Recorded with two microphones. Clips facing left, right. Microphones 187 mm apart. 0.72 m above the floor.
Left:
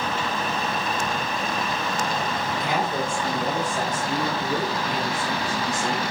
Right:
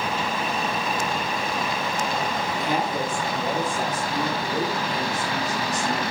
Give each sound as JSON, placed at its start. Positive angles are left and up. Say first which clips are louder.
{"t": 2.5, "sound": "a woman speaking", "louder": "even", "side_deg": 80, "distance_m": 6.5}